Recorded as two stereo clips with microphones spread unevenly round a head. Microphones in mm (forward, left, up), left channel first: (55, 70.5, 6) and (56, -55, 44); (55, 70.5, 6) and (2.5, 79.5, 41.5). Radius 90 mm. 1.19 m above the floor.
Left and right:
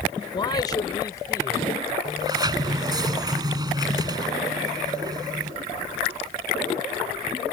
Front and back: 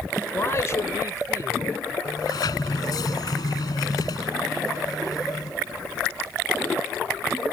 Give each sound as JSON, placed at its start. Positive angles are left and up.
{"t": 0.3, "sound": "a man speaking", "azimuth_deg": 35}
{"t": 2.0, "sound": "a sliding door", "azimuth_deg": -35}